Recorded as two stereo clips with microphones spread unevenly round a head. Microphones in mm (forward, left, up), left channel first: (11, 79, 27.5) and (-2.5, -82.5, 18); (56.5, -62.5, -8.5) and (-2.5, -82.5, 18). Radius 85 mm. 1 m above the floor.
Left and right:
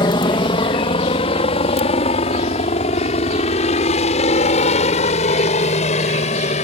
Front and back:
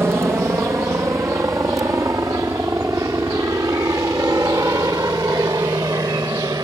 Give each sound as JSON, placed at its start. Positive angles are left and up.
{"t": 0.0, "sound": "a helicopter", "azimuth_deg": 130}